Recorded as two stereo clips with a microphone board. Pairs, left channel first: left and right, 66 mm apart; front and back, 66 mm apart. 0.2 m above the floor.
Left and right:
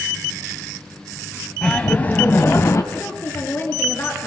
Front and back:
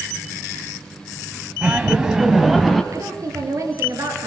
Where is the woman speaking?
145° left, 4 m.